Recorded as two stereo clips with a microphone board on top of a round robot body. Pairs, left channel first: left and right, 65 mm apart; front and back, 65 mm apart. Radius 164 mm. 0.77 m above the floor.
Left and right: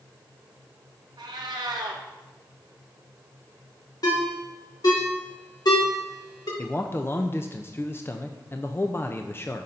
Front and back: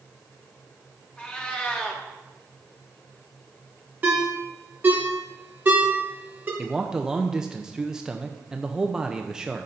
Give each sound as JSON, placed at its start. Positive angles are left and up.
{"t": 1.2, "sound": "a cat meowing", "azimuth_deg": -70, "distance_m": 0.9}
{"t": 4.0, "sound": "a ringtone", "azimuth_deg": 115, "distance_m": 2.0}
{"t": 6.6, "sound": "a man speaking", "azimuth_deg": 105, "distance_m": 0.7}